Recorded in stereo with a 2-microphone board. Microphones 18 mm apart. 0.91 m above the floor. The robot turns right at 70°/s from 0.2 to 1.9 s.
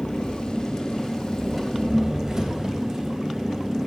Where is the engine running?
100° left, 3 m; by 3.9 s 140° right, 3 m.